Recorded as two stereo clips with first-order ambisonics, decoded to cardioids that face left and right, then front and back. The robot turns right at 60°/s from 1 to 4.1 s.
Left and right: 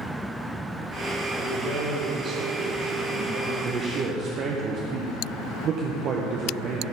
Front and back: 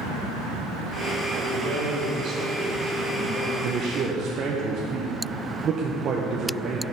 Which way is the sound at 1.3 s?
155° left.